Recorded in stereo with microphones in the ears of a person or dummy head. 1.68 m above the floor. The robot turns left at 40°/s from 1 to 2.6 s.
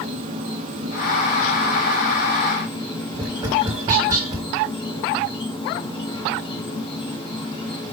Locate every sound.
0.0 s an insect: 140° right, 1.3 m; by 7.9 s 155° left, 1.3 m
3.1 s tapping: 20° right (ahead or behind), 1.5 m